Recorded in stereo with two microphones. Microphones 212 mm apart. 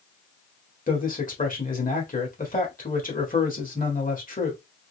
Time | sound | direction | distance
0.9 | a man speaking | 40° left (ahead or behind) | 1.6 m